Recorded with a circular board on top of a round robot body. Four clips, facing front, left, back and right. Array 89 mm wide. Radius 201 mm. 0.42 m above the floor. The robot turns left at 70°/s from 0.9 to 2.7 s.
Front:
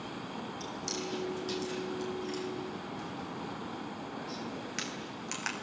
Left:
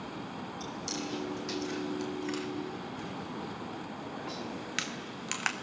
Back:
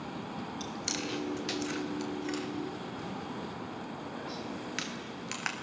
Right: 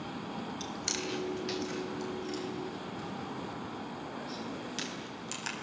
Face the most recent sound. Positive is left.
turn(degrees=105)